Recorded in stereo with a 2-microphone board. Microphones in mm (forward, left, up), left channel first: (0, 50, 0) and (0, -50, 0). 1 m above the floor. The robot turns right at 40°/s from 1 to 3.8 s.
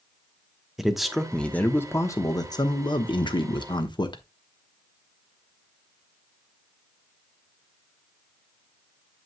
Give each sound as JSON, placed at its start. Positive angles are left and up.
{"t": 0.8, "sound": "a man speaking", "azimuth_deg": -5, "distance_m": 1.0}